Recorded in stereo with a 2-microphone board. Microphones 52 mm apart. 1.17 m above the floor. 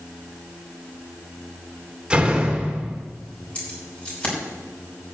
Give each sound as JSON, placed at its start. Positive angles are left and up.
{"t": 2.1, "sound": "a door slam", "side_deg": -20, "distance_m": 2.5}
{"t": 3.5, "sound": "keys jangling", "side_deg": 20, "distance_m": 5.5}